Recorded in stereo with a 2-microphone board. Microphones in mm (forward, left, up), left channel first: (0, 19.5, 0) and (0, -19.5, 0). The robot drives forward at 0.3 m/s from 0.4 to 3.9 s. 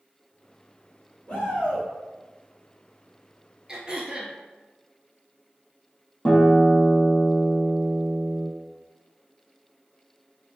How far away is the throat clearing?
About 0.9 m.